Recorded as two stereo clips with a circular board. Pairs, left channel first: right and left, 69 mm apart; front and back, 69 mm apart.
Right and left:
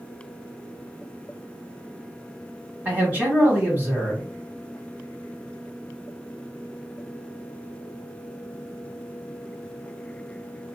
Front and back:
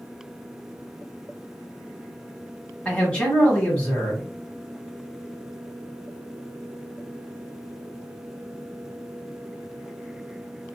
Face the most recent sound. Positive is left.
turn(degrees=60)